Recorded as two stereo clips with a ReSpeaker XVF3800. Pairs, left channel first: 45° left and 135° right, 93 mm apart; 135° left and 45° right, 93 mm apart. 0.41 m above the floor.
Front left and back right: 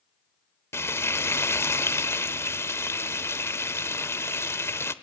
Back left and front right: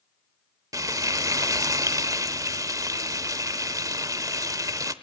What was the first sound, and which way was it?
Frying, 10° right.